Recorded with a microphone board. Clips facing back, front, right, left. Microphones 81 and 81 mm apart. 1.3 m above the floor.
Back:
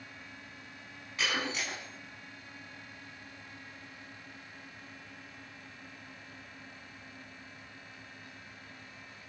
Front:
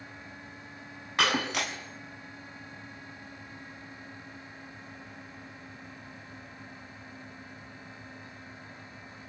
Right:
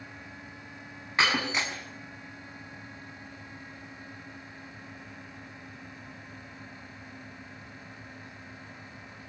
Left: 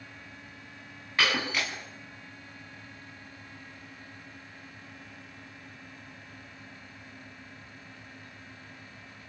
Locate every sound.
1.2 s breaking glass: 25° right, 4.5 m